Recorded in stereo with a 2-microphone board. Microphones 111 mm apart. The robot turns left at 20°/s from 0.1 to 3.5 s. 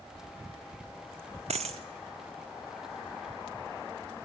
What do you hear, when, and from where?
1.5 s a dropped coin: 80° right, 0.6 m